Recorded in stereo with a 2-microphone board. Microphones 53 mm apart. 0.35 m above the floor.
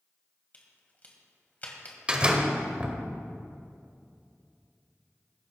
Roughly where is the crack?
Left.